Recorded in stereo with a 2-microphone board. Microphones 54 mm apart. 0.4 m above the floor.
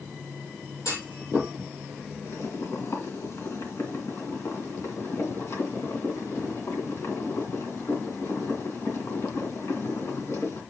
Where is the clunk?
85° left, 6.5 m.